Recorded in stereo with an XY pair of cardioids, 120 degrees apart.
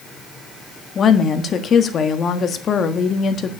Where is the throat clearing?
No throat clearing in this recording.